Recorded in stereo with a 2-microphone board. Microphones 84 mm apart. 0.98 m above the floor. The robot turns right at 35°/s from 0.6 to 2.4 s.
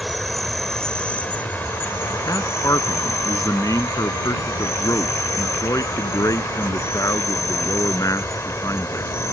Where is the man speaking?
45° left (ahead or behind); by 9.3 s 40° left (ahead or behind).